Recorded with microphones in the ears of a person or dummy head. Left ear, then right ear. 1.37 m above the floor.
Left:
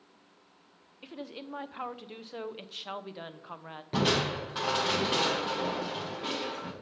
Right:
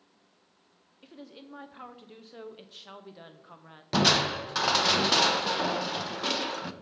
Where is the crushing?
40° right (ahead or behind), 0.6 m.